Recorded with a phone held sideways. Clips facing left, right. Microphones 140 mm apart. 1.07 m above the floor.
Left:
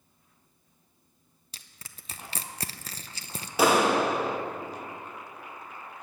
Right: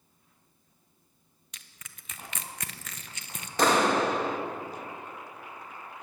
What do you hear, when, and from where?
1.5 s crushing: 35° left (ahead or behind), 0.7 m
3.6 s a clap: 10° left (ahead or behind), 1.2 m